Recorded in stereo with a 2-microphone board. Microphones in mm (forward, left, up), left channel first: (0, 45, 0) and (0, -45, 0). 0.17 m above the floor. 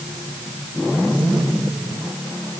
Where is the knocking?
I don't hear knocking.